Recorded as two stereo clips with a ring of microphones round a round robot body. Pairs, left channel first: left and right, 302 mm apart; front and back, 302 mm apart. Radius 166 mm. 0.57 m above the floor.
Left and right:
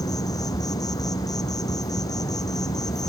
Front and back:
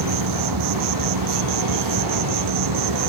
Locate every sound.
0.0 s an insect: 170° left